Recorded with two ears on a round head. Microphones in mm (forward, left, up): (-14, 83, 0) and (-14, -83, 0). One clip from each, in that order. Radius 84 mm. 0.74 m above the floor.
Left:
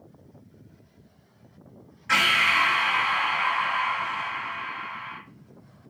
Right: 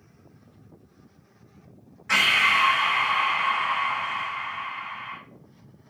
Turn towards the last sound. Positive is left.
turn(degrees=0)  # may be behind; listen again after turning